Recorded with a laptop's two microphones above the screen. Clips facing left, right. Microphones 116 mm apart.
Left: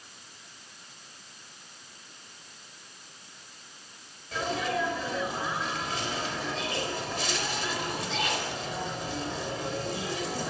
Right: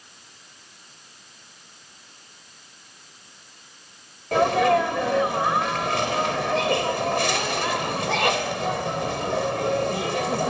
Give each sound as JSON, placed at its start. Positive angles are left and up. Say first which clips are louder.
{"t": 4.3, "sound": "a sneeze", "louder": "right 12 dB", "side_deg": -70, "distance_m": 4.0}